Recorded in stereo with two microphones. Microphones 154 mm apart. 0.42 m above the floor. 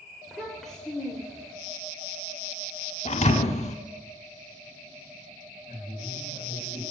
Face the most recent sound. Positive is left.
turn(degrees=-30)  # may be behind; listen again after turning